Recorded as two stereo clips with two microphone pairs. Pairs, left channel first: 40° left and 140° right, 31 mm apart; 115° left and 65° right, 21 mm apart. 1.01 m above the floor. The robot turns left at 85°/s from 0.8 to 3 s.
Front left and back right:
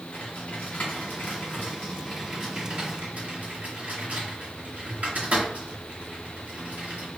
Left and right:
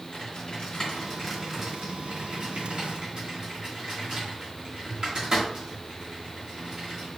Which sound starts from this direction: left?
Typing on a keyboard, at 0.1 s.